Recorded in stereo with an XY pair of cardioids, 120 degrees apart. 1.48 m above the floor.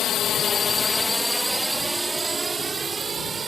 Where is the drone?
65° left; by 3.5 s 30° right.